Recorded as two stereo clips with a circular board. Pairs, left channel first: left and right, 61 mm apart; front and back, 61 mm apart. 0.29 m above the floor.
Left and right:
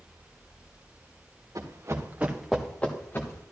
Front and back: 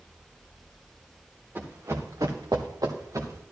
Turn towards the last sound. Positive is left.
turn(degrees=140)